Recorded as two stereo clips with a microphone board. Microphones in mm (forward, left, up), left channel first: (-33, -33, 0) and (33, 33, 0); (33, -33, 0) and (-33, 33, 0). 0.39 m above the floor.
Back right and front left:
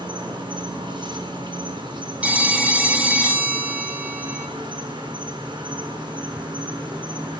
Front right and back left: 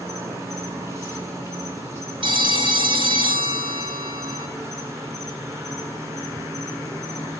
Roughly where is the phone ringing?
Behind left.